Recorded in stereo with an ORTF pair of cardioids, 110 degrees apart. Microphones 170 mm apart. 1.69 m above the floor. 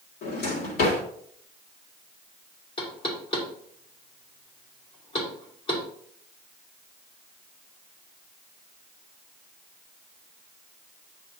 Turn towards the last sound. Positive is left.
turn(degrees=35)